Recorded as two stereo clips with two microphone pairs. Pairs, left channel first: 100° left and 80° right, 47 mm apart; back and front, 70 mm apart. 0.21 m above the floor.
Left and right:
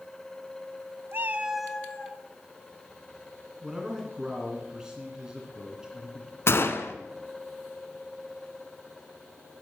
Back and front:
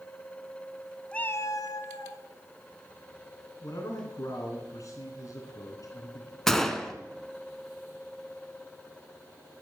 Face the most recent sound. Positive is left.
turn(degrees=100)